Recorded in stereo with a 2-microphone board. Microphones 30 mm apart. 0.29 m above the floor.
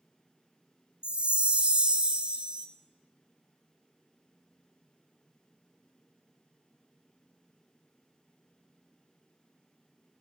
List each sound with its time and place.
1.0 s a chime: 40° right (ahead or behind), 1.0 m